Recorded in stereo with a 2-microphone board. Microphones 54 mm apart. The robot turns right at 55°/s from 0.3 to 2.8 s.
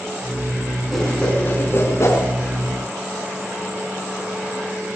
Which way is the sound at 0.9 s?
Centre (ahead or behind).